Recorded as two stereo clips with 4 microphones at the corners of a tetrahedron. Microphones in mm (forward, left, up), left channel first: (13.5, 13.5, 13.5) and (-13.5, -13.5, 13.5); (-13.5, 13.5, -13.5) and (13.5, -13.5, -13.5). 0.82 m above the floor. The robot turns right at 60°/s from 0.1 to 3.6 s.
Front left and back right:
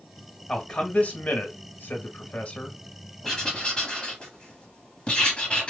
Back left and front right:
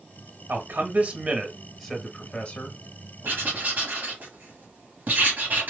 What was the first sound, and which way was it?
A man speaking, 35° right.